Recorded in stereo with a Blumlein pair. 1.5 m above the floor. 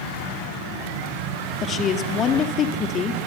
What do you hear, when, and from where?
1.6 s a woman speaking: 25° left, 3.5 m